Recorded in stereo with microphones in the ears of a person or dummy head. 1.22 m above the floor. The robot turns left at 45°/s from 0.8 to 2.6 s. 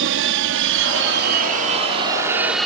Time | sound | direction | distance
0.0 | an aircraft | 60° right (ahead or behind) | ?